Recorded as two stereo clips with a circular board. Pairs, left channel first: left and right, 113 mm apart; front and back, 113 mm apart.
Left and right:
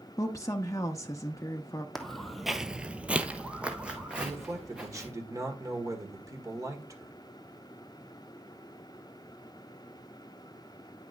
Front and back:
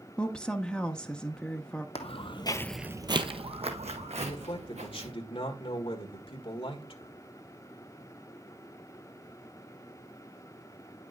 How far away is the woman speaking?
About 0.6 m.